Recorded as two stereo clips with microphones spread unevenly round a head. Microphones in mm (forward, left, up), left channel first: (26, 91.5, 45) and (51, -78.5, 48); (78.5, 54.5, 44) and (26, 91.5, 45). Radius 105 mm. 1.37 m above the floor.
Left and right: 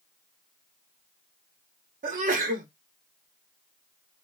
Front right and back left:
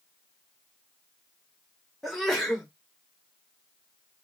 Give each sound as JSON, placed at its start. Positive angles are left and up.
{"t": 2.0, "sound": "a sneeze", "azimuth_deg": -125, "distance_m": 0.7}